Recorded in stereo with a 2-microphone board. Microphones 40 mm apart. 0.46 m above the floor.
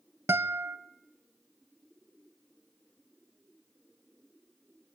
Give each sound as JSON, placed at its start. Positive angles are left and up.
{"t": 0.3, "sound": "a guitar", "side_deg": -80, "distance_m": 0.7}